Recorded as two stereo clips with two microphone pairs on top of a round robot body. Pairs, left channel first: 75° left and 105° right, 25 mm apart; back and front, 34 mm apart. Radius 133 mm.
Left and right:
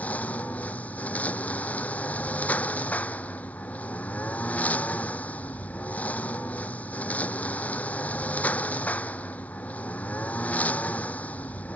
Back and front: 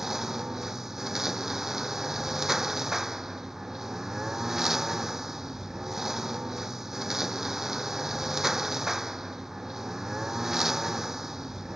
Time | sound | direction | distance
0.0 | a lawn mower | 80° left | ?